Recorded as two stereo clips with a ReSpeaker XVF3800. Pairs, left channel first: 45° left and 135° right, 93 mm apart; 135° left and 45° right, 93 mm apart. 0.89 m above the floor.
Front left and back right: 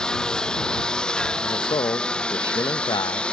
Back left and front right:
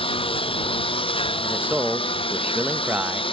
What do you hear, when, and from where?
0.0 s a lawn mower: 130° left; by 3.3 s 125° left
1.4 s a man speaking: 25° left